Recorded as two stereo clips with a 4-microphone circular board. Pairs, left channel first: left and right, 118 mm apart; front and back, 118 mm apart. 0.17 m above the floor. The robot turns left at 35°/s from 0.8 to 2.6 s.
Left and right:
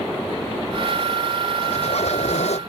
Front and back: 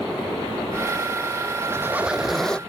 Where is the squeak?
115° left; by 2.6 s 80° left.